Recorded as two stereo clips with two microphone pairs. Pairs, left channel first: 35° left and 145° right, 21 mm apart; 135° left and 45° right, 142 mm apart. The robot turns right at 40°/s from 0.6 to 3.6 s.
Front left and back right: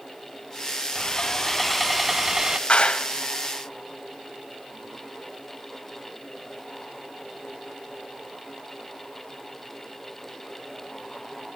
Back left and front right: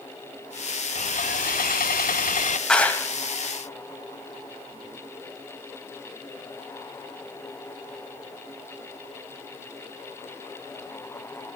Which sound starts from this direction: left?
Sawing, at 0.9 s.